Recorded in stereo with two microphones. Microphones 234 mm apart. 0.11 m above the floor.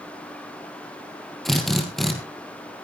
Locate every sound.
1.4 s a drill: centre (ahead or behind), 3 m